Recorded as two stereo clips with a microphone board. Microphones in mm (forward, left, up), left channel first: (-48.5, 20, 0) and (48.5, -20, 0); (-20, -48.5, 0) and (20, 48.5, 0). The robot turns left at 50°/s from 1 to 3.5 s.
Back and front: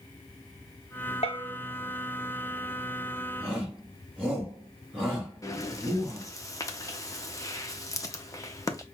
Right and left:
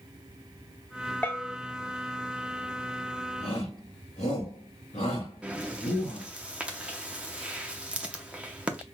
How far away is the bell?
About 0.8 m.